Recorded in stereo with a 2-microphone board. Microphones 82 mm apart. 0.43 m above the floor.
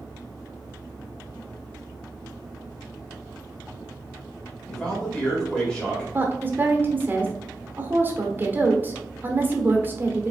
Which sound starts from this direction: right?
A woman speaking, at 6.1 s.